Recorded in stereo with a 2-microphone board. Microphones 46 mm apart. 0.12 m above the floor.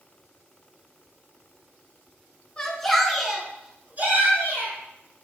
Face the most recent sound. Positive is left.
turn(degrees=-50)  # may be behind; listen again after turning